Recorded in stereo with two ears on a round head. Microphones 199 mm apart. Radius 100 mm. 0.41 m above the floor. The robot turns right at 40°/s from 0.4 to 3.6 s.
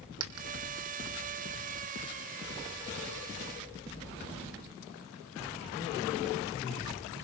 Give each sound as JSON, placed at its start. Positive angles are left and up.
{"t": 0.2, "sound": "a dropped coin", "side_deg": -75, "distance_m": 1.3}